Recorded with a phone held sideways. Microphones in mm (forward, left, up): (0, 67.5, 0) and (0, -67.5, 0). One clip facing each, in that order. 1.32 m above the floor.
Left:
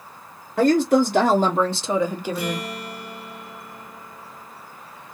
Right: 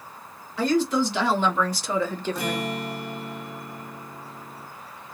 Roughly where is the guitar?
Right.